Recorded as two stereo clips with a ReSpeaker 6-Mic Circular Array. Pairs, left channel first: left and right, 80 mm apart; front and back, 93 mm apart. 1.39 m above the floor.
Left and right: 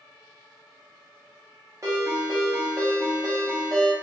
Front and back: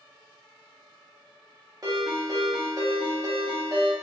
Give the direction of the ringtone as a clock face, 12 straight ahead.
5 o'clock.